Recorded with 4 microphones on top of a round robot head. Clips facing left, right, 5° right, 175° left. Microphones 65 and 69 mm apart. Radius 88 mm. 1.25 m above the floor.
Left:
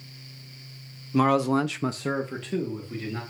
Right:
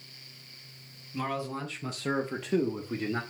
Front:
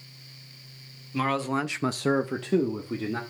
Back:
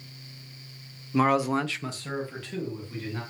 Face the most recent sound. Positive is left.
turn(degrees=-30)